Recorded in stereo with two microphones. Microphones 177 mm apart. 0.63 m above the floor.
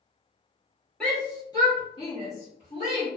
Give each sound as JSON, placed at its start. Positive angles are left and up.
{"t": 1.0, "sound": "a shout", "side_deg": 5, "distance_m": 0.9}